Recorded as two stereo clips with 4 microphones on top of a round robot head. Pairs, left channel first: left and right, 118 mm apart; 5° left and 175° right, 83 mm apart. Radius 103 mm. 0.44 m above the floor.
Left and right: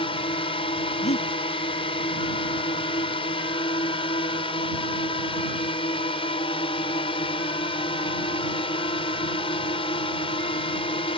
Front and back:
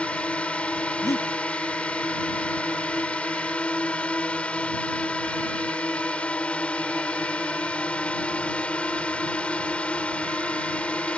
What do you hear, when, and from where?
0.0 s a drone: 75° left
1.0 s breathing: 60° left